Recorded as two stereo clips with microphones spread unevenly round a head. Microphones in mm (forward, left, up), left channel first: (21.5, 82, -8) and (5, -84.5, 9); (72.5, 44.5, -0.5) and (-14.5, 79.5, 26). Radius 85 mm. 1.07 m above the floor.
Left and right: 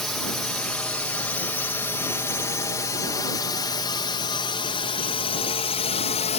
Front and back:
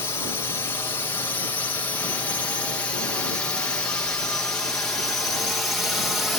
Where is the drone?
Straight ahead; by 6.4 s 55° left.